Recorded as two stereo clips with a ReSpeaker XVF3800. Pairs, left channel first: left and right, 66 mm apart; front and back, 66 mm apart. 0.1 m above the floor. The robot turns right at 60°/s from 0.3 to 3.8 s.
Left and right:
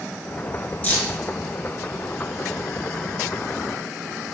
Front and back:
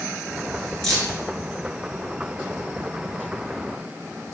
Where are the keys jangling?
70° left, 0.9 m; by 1.2 s 95° left, 0.9 m.